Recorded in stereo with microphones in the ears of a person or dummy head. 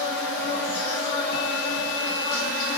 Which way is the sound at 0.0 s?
55° left (ahead or behind).